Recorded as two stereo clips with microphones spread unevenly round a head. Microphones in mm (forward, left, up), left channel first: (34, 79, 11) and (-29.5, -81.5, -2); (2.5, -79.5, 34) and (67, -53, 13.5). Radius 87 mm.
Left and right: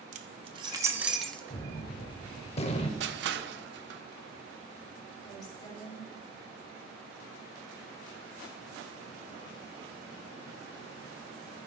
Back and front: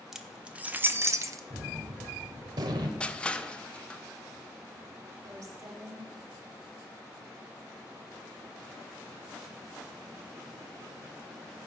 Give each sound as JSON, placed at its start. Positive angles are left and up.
{"t": 0.1, "sound": "keys jangling", "azimuth_deg": -65, "distance_m": 1.0}
{"t": 1.5, "sound": "a gunshot", "azimuth_deg": 50, "distance_m": 0.8}
{"t": 3.0, "sound": "crushing", "azimuth_deg": -85, "distance_m": 0.8}
{"t": 5.2, "sound": "a woman speaking", "azimuth_deg": 0, "distance_m": 3.5}